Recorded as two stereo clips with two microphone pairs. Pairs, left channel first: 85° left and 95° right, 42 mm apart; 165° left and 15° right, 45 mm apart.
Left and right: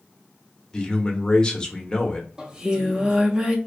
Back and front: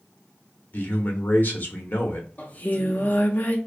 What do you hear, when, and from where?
0.7 s a man speaking: 145° left, 0.8 m
2.4 s singing: 165° right, 0.6 m